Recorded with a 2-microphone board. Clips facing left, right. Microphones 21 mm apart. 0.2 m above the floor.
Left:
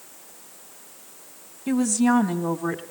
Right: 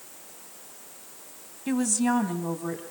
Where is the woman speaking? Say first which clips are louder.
Left 4 dB; 5° right (ahead or behind), 1.0 m; by 2.8 s 30° left (ahead or behind), 1.1 m.